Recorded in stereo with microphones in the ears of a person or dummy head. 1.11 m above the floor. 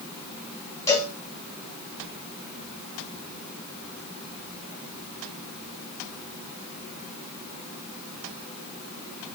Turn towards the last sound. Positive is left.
turn(degrees=20)  # may be behind; listen again after turning